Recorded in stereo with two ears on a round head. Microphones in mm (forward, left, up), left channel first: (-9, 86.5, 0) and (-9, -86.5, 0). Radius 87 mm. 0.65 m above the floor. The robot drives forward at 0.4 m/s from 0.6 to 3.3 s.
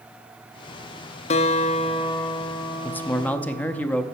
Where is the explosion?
No explosion in this recording.